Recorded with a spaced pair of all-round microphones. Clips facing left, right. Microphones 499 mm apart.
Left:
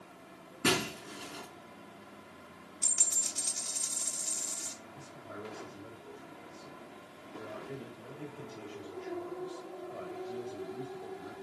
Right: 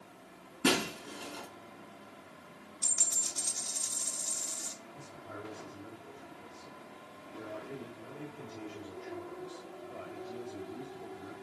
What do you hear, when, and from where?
0.6 s breaking glass: 10° right (ahead or behind), 5 m
2.8 s a dropped coin: 50° left (ahead or behind), 2 m
4.9 s a man speaking: 20° right (ahead or behind), 4.5 m